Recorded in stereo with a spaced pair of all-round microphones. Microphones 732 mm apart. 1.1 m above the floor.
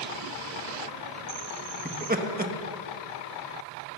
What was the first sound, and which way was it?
Laughter, 15° right (ahead or behind).